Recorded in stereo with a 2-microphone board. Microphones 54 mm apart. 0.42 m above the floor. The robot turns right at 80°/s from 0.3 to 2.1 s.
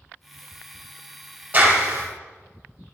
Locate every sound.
1.5 s a clap: 150° right, 1.6 m; by 2.1 s 105° right, 1.6 m